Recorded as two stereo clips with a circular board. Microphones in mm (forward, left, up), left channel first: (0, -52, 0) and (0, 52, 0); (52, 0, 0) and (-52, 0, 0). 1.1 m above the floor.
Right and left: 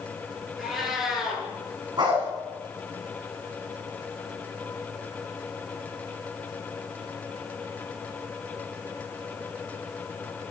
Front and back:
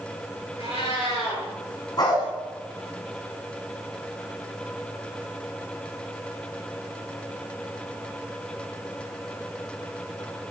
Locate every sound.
0.6 s a cat meowing: 5° left, 8 m
2.0 s a dog barking: 45° left, 4.5 m